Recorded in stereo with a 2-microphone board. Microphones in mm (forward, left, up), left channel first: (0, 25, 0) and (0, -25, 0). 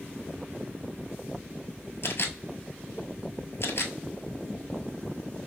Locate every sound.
2.0 s a camera shutter: 65° left (ahead or behind), 0.7 m